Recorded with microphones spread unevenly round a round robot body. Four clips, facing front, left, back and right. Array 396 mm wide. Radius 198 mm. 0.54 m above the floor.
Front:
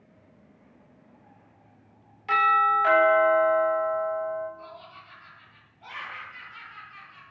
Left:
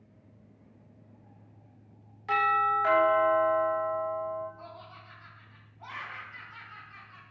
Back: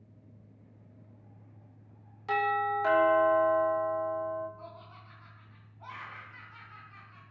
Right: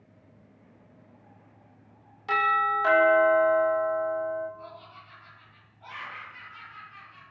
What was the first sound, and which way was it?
A doorbell, 160° right.